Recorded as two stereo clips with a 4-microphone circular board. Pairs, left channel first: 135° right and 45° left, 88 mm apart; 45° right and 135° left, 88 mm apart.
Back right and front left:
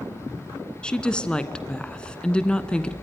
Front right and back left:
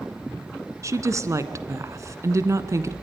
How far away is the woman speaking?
About 1.3 m.